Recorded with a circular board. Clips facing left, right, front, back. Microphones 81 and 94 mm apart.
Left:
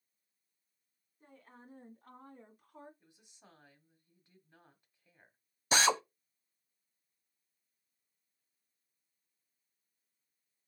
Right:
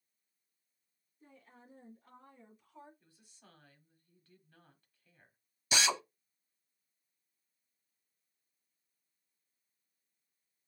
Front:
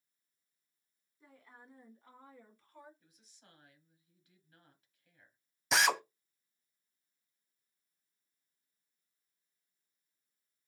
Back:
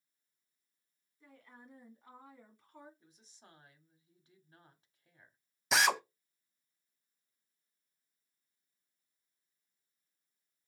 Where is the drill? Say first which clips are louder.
Left 4 dB, even; 90° left, 0.5 m.